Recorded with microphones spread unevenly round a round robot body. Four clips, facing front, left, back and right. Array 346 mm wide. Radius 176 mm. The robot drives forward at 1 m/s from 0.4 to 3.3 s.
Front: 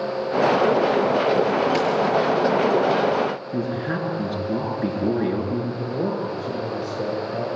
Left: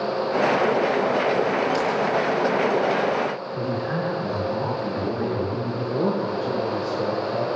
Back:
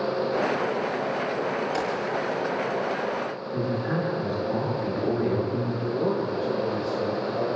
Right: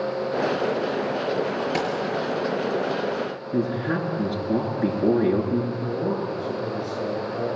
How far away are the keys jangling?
About 8.5 m.